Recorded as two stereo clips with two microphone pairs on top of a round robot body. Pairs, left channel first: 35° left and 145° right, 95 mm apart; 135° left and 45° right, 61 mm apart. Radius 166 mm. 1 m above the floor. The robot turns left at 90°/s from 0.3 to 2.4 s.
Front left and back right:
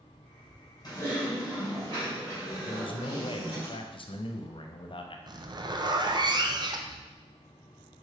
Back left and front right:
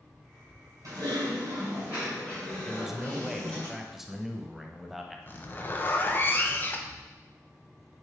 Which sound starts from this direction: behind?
A zipper, at 5.3 s.